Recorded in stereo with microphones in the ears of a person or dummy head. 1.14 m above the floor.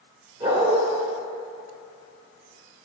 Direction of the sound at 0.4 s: 25° right (ahead or behind).